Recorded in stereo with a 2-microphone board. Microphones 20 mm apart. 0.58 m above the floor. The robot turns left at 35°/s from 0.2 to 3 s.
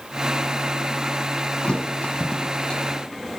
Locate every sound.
1.6 s a thud: 85° left, 1.7 m; by 2.8 s 45° left (ahead or behind), 1.7 m